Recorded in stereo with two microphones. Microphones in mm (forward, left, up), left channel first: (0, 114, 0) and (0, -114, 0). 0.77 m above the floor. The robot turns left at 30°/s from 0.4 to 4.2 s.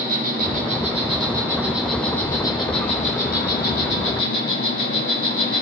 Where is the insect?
135° right, 1.6 m; by 5.6 s 110° left, 1.6 m.